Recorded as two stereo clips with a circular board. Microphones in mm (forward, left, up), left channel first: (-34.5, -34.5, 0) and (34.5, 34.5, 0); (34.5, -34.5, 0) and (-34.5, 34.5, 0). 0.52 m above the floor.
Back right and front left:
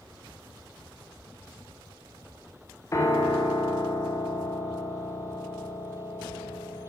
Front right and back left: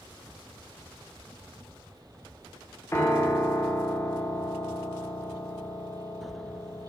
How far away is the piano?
About 1.0 m.